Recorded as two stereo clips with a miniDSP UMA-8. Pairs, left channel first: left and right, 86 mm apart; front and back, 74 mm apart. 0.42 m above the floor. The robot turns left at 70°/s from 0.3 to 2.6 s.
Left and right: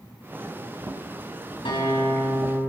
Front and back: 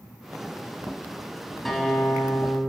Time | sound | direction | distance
1.6 | a guitar | 90° left | 3.5 m